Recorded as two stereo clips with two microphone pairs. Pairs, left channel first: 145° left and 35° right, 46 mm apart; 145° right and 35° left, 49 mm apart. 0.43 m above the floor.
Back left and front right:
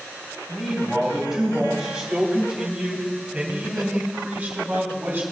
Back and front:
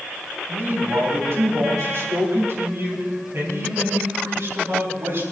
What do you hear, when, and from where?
0.5 s a man speaking: 55° left, 3.5 m; by 5.2 s 15° left, 4 m